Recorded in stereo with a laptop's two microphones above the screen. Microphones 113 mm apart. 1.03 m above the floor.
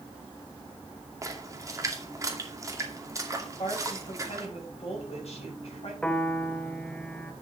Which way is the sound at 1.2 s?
30° right (ahead or behind).